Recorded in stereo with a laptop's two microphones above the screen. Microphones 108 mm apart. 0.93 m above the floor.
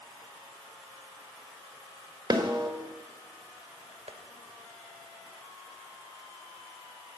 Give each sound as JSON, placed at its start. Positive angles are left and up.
{"t": 2.3, "sound": "a snare drum", "side_deg": -45, "distance_m": 3.5}
{"t": 4.1, "sound": "tapping", "side_deg": -75, "distance_m": 2.5}